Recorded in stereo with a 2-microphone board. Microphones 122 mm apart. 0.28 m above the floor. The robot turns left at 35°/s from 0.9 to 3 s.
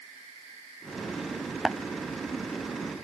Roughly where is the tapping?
Centre.